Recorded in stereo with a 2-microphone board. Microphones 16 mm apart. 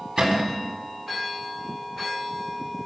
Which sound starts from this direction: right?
A cupboard door, at 0.2 s.